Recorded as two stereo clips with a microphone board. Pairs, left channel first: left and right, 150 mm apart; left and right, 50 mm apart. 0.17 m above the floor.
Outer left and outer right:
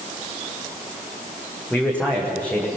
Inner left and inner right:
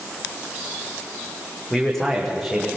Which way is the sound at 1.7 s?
10° left (ahead or behind).